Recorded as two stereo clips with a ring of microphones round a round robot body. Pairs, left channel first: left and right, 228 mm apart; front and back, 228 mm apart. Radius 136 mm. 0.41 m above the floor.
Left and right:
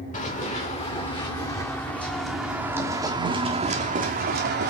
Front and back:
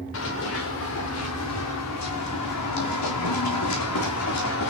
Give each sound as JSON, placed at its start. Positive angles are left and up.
{"t": 0.1, "sound": "running footsteps", "azimuth_deg": 30, "distance_m": 2.5}